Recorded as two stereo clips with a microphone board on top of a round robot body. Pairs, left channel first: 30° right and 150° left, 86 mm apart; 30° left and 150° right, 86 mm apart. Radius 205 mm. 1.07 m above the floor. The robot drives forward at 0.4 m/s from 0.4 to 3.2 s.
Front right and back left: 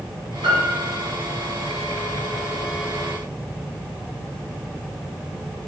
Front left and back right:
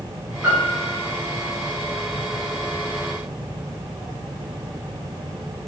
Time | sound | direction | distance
0.4 | a piano | 130° left | 2.5 m